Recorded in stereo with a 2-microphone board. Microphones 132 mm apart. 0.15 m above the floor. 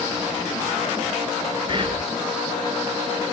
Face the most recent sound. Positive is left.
turn(degrees=-40)  # may be behind; listen again after turning